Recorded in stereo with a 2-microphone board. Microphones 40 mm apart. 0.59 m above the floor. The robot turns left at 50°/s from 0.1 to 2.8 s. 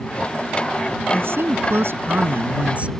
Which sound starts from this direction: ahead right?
A woman speaking, at 1.1 s.